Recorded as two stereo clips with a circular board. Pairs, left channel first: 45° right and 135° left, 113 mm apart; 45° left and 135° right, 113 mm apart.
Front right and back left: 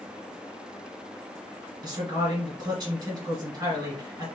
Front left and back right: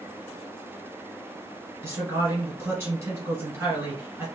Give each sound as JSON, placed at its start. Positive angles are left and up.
{"t": 1.8, "sound": "a man speaking", "azimuth_deg": 165, "distance_m": 1.8}